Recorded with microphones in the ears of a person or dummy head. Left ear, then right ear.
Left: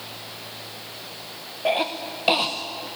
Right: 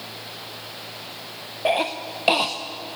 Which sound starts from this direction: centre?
A cough, at 1.6 s.